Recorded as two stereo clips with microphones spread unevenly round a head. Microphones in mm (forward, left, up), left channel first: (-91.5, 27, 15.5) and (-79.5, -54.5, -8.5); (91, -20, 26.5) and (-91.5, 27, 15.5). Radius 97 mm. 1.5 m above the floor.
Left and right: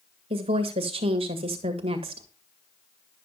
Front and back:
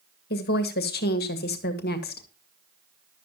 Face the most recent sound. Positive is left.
turn(degrees=-55)